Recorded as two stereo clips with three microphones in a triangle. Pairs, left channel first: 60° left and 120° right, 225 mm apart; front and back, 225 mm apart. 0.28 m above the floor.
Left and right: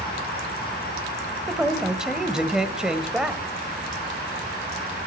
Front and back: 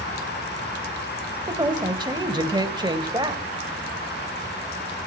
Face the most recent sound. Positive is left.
turn(degrees=160)